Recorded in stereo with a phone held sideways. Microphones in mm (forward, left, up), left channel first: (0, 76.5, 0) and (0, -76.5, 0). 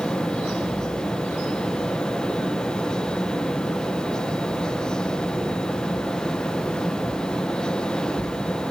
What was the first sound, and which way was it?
A fan, 5° left (ahead or behind).